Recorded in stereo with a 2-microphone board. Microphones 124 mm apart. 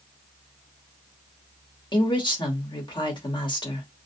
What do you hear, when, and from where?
1.9 s a woman speaking: 35° left (ahead or behind), 0.9 m